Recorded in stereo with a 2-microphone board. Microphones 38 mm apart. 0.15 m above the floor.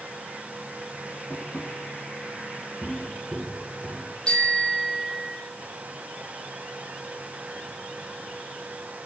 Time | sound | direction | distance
1.3 | tapping | 35° left (ahead or behind) | 8 m
2.8 | footsteps | 5° right (ahead or behind) | 3.5 m
4.3 | a bicycle bell | 25° left (ahead or behind) | 4 m